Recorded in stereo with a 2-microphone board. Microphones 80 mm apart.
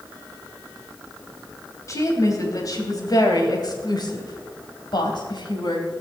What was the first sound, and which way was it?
A woman speaking, 40° left (ahead or behind).